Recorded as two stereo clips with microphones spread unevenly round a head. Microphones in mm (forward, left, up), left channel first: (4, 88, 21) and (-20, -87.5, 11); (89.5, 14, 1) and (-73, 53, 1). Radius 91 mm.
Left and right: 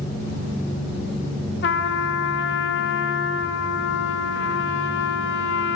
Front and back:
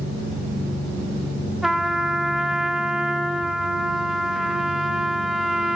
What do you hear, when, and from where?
1.6 s a trumpet: 80° left, 0.5 m